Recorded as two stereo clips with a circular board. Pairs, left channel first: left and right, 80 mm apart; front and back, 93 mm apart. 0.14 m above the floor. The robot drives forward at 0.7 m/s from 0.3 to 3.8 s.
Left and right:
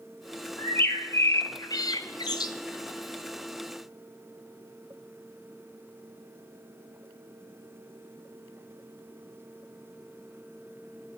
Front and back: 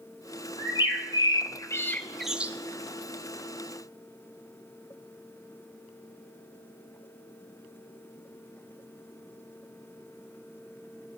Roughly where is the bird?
Ahead left.